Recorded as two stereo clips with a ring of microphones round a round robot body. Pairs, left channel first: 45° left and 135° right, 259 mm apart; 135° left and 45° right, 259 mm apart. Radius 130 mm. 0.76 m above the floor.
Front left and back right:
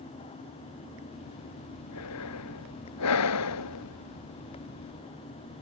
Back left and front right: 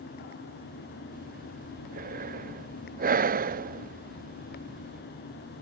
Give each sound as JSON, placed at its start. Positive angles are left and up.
{"t": 1.1, "sound": "breathing", "azimuth_deg": 15}